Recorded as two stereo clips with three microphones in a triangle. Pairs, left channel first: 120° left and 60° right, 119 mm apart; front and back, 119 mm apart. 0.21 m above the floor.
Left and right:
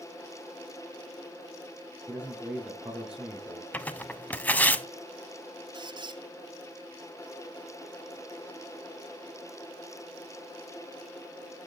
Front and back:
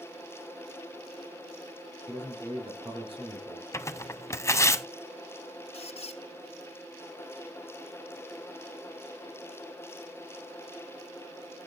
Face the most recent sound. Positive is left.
turn(degrees=-15)